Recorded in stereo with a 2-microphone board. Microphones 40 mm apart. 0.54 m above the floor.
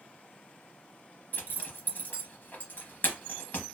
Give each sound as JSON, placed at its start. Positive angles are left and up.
{"t": 1.3, "sound": "a zipper", "side_deg": 50, "distance_m": 0.7}